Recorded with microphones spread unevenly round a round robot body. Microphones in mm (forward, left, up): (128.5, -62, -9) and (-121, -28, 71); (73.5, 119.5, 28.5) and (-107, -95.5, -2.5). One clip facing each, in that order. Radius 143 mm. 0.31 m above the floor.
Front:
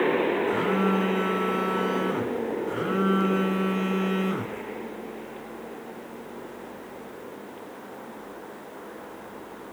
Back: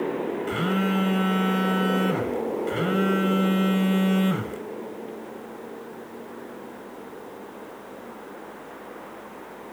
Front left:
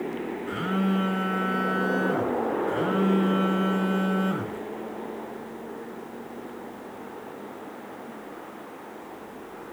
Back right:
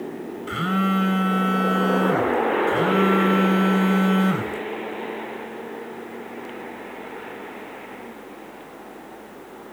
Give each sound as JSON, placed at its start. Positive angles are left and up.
{"t": 0.5, "sound": "a phone buzzing", "azimuth_deg": -150, "distance_m": 2.5}